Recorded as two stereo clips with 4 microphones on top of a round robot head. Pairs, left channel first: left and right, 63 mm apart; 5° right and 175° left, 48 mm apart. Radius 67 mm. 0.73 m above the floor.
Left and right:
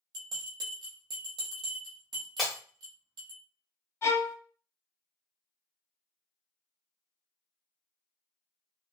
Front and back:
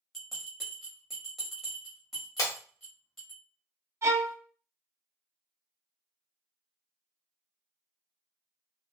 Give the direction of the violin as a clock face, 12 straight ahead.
7 o'clock.